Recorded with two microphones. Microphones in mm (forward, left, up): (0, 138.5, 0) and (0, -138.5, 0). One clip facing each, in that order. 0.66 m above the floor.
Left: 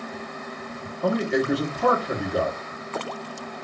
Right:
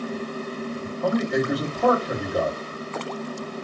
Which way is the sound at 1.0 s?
25° left (ahead or behind).